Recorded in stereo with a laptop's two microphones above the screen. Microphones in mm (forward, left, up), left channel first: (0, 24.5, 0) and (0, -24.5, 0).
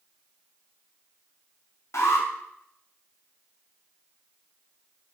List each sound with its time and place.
1.9 s an alarm: 70° left (ahead or behind), 4 m